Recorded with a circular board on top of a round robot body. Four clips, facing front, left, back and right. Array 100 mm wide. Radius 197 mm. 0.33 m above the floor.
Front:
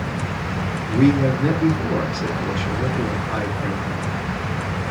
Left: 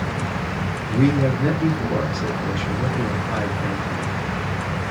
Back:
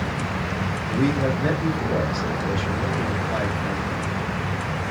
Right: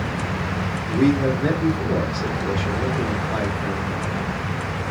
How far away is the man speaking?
About 2 m.